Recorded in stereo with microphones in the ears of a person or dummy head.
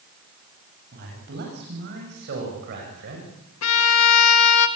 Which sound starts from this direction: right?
A man speaking, at 0.9 s.